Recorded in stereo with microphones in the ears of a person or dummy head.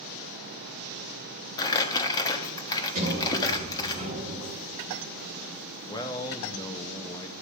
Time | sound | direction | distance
1.6 | crumpling | 20° left (ahead or behind) | 1.4 m
3.0 | a sliding door | 40° right (ahead or behind) | 3.5 m
5.9 | a man speaking | 20° left (ahead or behind) | 0.9 m